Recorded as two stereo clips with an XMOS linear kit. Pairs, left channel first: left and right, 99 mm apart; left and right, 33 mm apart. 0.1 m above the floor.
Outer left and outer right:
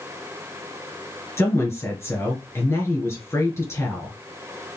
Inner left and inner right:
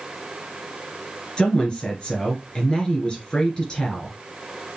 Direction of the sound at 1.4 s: 25° left (ahead or behind).